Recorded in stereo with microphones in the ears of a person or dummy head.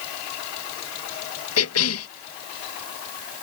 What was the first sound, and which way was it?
A cough, 75° left (ahead or behind).